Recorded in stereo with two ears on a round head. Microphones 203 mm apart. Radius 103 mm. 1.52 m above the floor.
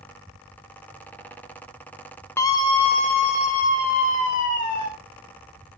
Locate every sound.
2.4 s a scream: 10° left (ahead or behind), 0.6 m; by 4.9 s 35° left (ahead or behind), 2.5 m